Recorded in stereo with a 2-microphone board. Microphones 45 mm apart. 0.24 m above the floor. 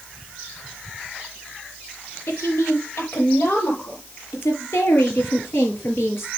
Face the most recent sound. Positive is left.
turn(degrees=75)  # may be behind; listen again after turning